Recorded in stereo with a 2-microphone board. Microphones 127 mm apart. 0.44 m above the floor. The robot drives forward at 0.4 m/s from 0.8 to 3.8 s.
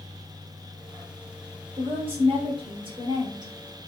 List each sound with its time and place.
1.8 s a woman speaking: 45° right (ahead or behind), 1.2 m; by 3.5 s 35° right (ahead or behind), 1.4 m